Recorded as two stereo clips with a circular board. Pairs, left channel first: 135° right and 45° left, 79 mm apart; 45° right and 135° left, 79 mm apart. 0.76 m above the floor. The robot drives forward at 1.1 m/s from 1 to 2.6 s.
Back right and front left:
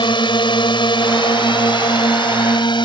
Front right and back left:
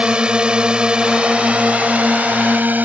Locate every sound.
0.0 s a drone: 145° right; by 2.9 s 155° right